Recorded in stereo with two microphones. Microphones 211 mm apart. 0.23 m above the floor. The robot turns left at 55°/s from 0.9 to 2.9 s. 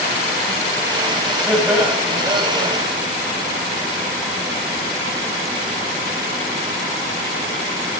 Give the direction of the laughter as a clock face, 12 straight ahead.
12 o'clock.